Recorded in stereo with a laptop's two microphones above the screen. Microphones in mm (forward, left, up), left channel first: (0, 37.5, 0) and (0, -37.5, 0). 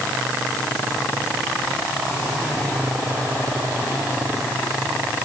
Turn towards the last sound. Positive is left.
No sound to turn to.